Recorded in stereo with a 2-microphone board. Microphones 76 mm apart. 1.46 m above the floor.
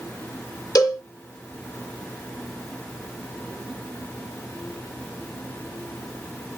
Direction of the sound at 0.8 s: 55° left (ahead or behind).